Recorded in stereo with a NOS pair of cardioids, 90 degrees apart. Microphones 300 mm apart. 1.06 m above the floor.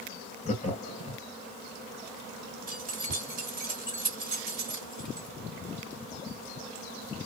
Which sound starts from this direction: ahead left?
Laughter, at 0.5 s.